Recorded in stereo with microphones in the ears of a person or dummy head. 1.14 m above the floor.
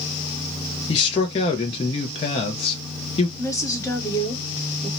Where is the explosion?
I don't hear an explosion.